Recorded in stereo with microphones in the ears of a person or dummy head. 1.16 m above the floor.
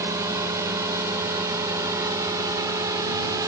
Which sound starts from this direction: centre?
A drone, at 0.0 s.